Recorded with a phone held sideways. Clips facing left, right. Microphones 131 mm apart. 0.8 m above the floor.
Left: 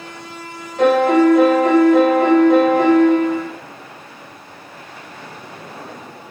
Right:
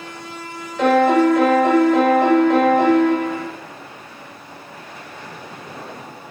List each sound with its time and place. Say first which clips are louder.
0.8 s a piano: left 2 dB; 60° left (ahead or behind), 1.9 m